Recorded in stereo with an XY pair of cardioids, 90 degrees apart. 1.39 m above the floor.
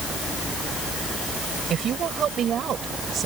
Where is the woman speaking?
65° right; by 3.3 s 60° right.